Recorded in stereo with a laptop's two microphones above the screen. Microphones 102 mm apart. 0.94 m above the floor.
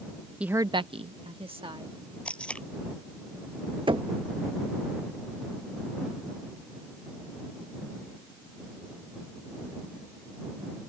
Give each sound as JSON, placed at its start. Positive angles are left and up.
{"t": 0.4, "sound": "a woman speaking", "side_deg": -10}
{"t": 2.2, "sound": "tape being pulled", "side_deg": 10}
{"t": 3.9, "sound": "knocking", "side_deg": -55}